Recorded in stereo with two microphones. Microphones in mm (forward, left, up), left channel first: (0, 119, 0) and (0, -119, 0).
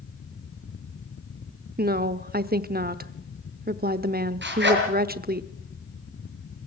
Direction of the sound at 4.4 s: 50° right (ahead or behind).